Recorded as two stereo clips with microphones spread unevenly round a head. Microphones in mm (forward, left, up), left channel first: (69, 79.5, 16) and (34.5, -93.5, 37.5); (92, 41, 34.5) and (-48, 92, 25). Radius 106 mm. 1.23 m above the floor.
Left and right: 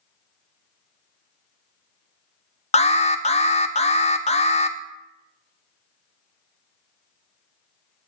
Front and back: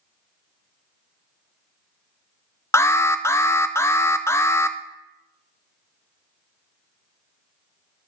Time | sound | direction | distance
2.7 | an alarm | 50° left | 0.7 m